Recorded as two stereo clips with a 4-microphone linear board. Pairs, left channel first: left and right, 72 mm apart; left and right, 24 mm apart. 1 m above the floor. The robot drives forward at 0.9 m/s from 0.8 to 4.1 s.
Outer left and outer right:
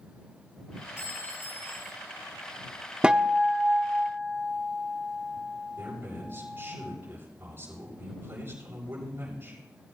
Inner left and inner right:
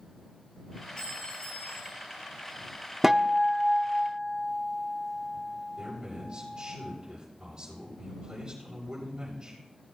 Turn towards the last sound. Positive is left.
turn(degrees=-25)  # may be behind; listen again after turning